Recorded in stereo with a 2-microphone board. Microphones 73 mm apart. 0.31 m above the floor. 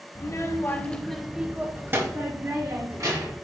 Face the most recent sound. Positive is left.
turn(degrees=-55)  # may be behind; listen again after turning